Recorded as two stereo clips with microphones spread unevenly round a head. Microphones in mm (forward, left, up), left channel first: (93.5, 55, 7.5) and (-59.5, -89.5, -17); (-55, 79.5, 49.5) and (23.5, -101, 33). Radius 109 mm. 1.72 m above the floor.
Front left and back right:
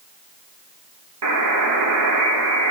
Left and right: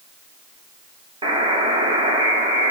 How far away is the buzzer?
About 3 m.